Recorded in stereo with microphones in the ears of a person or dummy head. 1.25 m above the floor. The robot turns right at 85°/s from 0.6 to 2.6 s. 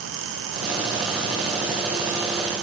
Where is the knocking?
I don't hear knocking.